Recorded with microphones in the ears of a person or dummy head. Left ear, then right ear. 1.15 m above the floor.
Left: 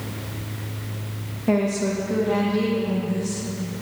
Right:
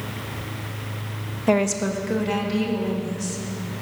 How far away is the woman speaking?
About 0.8 m.